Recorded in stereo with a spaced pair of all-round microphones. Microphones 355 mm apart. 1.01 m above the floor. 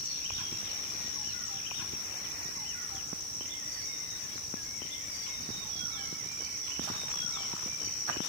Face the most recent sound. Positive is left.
No sound to turn to.